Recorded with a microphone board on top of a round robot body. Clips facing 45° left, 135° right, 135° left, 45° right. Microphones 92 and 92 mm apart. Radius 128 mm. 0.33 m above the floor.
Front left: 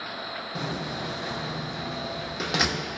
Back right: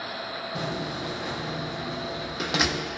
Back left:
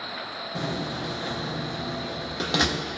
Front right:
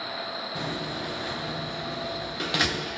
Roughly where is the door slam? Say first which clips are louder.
Back right 1 dB, back left 4 dB; behind left.